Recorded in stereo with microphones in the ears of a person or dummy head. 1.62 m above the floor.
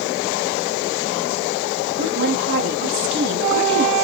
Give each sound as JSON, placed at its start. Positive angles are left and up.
{"t": 2.0, "sound": "a woman speaking", "side_deg": -65, "distance_m": 1.6}